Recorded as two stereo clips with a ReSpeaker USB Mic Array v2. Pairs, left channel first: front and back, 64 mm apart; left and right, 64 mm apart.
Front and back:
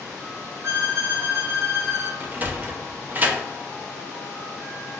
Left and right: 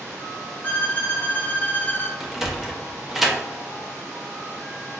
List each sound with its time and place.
0.6 s a violin: 145° left, 0.6 m
2.2 s a sliding door: 175° right, 0.6 m